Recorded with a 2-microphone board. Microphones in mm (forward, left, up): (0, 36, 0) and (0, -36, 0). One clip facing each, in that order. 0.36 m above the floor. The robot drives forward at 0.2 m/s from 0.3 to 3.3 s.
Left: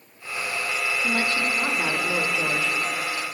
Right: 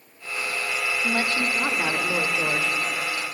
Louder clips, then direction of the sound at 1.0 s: Even; 20° right (ahead or behind).